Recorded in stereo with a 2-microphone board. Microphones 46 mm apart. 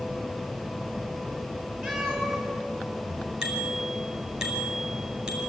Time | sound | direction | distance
1.8 | a cat meowing | 5° right (ahead or behind) | 6 m
3.4 | a bicycle bell | 10° right (ahead or behind) | 6 m